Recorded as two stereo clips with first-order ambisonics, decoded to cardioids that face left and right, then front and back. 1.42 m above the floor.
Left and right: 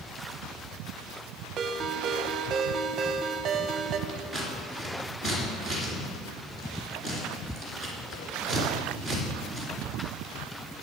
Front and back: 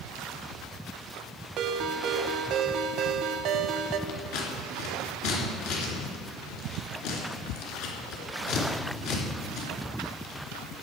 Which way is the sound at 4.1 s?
10° left.